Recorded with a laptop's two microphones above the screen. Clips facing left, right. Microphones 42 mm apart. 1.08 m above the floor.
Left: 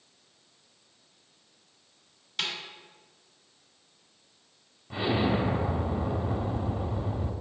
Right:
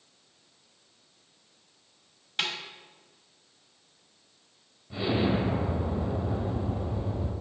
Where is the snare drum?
30° right (ahead or behind), 1.7 m.